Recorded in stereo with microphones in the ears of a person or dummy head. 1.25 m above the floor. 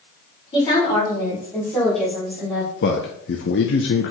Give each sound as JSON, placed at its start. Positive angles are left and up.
{"t": 0.5, "sound": "a woman speaking", "side_deg": 30, "distance_m": 3.5}
{"t": 2.8, "sound": "a man speaking", "side_deg": 55, "distance_m": 0.7}